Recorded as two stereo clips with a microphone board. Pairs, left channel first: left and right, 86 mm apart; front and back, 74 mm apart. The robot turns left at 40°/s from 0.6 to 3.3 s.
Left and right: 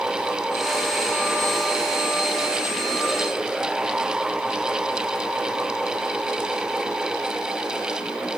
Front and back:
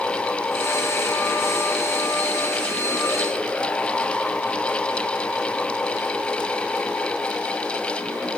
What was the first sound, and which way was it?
Only background noise.